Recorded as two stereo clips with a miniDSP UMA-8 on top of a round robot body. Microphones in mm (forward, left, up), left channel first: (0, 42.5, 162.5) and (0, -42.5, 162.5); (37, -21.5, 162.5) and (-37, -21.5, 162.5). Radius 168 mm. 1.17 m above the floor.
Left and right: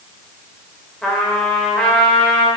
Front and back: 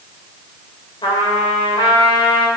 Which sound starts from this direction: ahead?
A trumpet, at 1.0 s.